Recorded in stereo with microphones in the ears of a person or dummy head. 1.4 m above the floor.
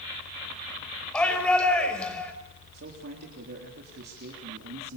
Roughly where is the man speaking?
Right.